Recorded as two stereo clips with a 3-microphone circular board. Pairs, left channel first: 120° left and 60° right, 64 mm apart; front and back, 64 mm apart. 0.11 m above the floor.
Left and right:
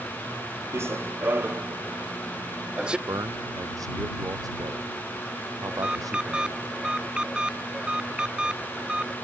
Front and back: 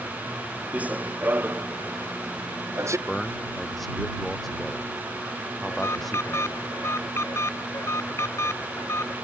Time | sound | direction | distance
0.7 | running footsteps | 110° right | ?
3.1 | a man speaking | 90° right | ?
5.7 | an alarm | 10° left | ?